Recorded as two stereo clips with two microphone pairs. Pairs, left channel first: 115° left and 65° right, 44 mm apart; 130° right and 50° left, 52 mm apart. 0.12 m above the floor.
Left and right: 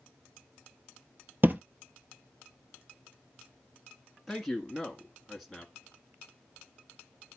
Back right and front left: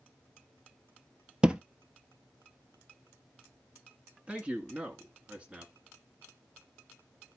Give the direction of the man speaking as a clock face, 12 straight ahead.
11 o'clock.